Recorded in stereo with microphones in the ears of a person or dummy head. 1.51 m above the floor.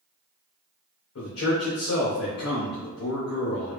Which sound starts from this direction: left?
A man speaking, at 1.1 s.